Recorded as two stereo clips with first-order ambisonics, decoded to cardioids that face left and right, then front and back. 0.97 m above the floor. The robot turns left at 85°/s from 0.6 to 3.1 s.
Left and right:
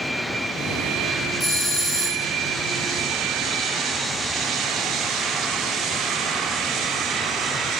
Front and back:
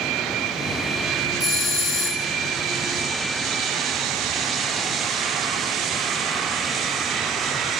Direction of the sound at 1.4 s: 25° left.